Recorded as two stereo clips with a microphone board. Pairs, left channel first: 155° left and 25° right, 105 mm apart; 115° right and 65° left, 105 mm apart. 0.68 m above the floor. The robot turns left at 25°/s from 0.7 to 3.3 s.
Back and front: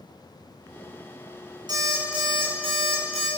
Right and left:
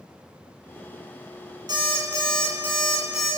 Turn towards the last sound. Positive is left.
turn(degrees=-20)